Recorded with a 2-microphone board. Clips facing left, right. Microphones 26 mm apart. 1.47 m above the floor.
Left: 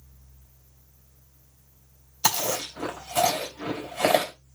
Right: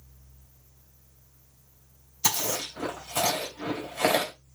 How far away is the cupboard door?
I don't hear a cupboard door.